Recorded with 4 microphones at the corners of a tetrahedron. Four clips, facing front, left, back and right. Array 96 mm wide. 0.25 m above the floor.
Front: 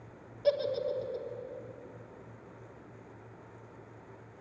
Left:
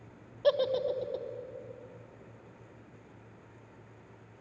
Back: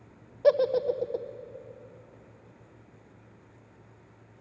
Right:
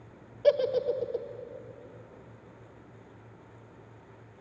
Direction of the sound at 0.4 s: 165° left.